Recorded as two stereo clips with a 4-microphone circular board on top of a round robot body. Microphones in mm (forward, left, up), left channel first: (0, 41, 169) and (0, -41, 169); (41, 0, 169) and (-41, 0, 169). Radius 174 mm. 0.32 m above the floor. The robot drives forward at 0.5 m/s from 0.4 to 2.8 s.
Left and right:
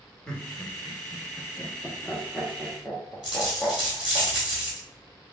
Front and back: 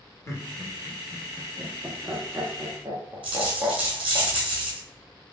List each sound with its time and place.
0.3 s laughter: 15° left, 1.3 m; by 4.2 s 165° left, 1.3 m
3.2 s a dropped coin: 175° right, 1.8 m